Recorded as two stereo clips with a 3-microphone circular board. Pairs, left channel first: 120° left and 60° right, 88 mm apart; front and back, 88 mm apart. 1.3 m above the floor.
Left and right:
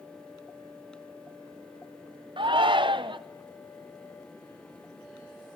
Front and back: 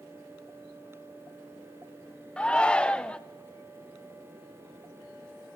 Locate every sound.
2.4 s a shout: 80° right, 0.6 m